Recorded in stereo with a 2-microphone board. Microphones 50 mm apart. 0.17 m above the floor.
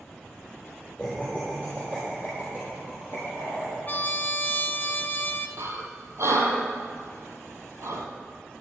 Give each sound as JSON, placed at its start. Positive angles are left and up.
{"t": 1.0, "sound": "laughter", "side_deg": -10, "distance_m": 5.5}
{"t": 3.9, "sound": "a trumpet", "side_deg": 35, "distance_m": 0.9}
{"t": 5.6, "sound": "breathing", "side_deg": -70, "distance_m": 2.0}